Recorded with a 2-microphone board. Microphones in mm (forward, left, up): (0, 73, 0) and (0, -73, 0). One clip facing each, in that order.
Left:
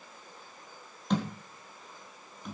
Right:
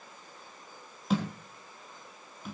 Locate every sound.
1.1 s a thud: 5° right (ahead or behind), 4.5 m